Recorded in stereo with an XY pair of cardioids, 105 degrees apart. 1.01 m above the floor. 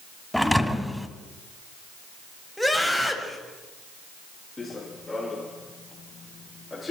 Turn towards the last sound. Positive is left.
turn(degrees=20)